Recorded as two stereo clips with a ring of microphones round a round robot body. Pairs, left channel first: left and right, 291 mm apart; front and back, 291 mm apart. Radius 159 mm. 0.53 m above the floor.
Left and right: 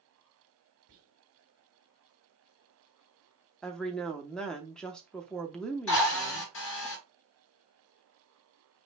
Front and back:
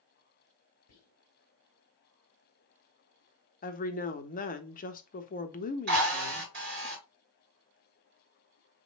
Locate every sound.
0.9 s whispering: 45° right, 2.0 m
3.6 s a woman speaking: 5° left, 0.7 m
5.9 s a drill: 130° left, 3 m